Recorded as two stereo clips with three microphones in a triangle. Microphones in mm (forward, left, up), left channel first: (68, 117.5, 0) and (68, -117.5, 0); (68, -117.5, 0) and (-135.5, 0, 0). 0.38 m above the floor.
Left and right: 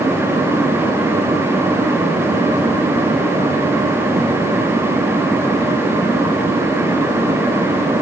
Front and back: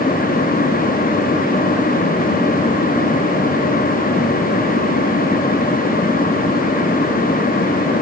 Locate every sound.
Only background noise.